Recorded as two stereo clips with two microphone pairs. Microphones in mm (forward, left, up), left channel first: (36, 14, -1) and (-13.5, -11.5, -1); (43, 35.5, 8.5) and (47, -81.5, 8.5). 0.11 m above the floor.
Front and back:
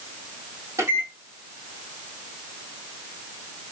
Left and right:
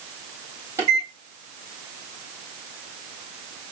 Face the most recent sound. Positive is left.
turn(degrees=-150)